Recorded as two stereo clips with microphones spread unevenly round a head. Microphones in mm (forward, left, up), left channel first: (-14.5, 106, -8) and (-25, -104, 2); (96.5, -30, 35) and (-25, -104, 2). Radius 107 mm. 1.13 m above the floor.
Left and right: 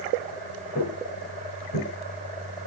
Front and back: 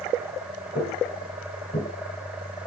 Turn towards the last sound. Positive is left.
turn(degrees=70)